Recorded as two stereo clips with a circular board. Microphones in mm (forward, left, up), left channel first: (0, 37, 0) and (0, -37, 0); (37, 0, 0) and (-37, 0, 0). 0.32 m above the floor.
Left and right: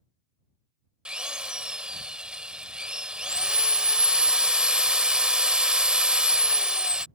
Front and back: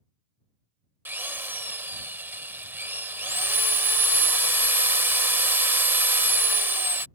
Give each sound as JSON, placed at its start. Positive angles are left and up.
{"t": 1.1, "sound": "a drill", "azimuth_deg": -155}